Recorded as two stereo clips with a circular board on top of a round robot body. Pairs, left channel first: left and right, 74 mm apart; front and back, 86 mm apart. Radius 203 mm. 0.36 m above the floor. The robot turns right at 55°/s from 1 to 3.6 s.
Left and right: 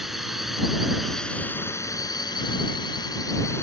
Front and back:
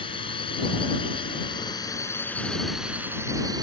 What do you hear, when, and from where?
0.0 s a drone: 5° right; by 3.6 s 145° left